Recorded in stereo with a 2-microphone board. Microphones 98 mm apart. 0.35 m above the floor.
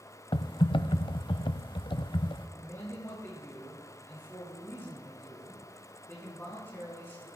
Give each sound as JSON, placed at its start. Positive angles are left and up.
{"t": 0.3, "sound": "typing on a keyboard", "side_deg": 60, "distance_m": 0.6}
{"t": 2.6, "sound": "a man speaking", "side_deg": 25, "distance_m": 4.5}